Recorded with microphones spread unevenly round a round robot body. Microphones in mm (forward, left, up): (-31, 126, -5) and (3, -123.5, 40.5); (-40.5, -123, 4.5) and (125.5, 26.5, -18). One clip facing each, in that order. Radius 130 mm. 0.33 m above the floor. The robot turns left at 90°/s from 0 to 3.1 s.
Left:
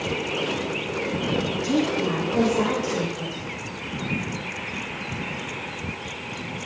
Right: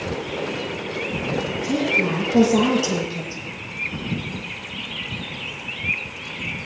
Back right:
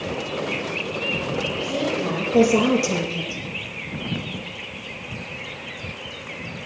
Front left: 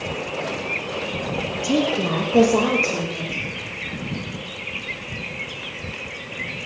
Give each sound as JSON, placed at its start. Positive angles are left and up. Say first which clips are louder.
{"t": 1.6, "sound": "a woman speaking", "louder": "even, front left 7 dB", "azimuth_deg": 20, "distance_m": 8.0}